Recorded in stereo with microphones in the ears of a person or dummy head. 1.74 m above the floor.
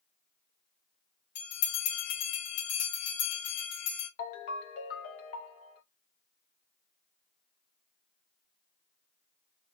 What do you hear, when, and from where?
1.4 s a bell: 55° left (ahead or behind), 2.5 m
4.2 s a ringtone: 45° left (ahead or behind), 1.2 m